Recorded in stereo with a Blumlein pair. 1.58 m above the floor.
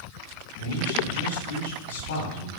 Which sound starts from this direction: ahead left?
A man speaking, at 0.6 s.